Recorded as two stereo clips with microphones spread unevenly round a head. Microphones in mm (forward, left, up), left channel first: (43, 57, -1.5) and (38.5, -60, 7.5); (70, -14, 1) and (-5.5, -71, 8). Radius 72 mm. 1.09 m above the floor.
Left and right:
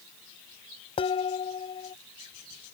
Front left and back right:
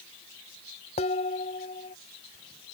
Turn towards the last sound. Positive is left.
turn(degrees=45)